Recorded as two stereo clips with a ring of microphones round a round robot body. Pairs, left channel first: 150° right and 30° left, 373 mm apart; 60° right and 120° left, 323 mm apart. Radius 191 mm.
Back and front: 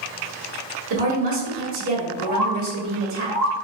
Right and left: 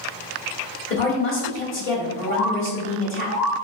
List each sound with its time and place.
0.9 s a woman speaking: 15° right, 1.6 m
2.3 s a bird: 155° right, 0.8 m